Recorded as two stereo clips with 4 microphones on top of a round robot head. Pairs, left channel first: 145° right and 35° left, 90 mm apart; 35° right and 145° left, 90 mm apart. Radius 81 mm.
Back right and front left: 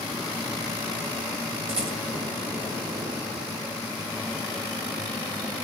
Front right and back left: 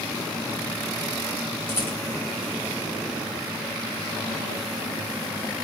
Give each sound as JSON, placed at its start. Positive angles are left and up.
{"t": 1.7, "sound": "a rattle", "azimuth_deg": 30, "distance_m": 1.8}